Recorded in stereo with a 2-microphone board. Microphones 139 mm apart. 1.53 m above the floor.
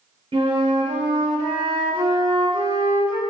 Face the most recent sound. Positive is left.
turn(degrees=-40)  # may be behind; listen again after turning